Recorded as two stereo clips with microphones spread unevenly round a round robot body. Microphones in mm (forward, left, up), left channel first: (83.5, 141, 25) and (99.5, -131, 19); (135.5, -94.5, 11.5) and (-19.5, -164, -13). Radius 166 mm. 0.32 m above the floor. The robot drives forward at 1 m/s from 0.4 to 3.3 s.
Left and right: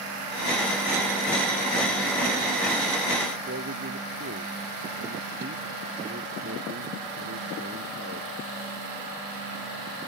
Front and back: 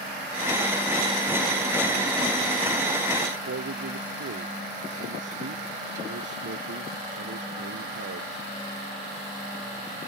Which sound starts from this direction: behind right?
A man speaking, at 3.5 s.